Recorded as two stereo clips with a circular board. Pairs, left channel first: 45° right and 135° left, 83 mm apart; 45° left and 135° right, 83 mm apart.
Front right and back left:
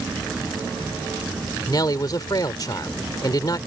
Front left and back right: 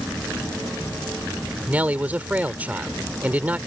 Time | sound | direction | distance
1.7 | a man speaking | 70° right | ?